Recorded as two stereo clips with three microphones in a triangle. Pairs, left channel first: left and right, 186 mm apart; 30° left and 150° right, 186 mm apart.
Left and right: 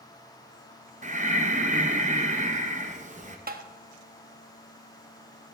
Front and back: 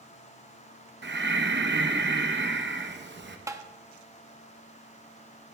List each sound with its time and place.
1.0 s breathing: 140° right, 0.7 m
3.5 s tapping: 80° right, 0.6 m